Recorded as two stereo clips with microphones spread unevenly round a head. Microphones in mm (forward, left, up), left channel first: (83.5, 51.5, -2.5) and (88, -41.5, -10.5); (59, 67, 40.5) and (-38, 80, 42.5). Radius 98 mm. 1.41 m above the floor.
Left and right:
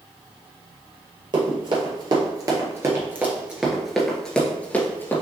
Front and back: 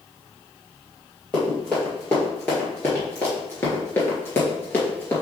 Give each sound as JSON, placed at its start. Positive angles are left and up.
{"t": 1.3, "sound": "running footsteps", "azimuth_deg": -85, "distance_m": 2.0}